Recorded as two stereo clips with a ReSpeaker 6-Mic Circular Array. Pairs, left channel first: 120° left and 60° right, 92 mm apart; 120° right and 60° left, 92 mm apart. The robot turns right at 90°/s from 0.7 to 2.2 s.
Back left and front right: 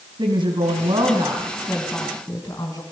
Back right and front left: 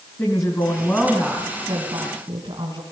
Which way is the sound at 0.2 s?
65° right.